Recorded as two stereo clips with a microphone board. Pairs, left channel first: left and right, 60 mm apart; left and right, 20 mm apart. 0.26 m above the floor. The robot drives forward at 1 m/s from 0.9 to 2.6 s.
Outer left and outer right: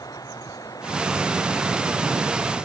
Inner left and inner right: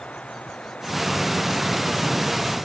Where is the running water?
85° left.